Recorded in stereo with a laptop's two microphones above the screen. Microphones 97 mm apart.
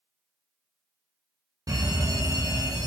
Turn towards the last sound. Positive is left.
turn(degrees=-40)  # may be behind; listen again after turning